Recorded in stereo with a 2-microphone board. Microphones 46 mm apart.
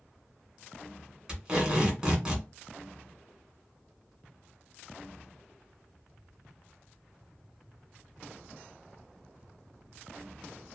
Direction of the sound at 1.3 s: 15° right (ahead or behind).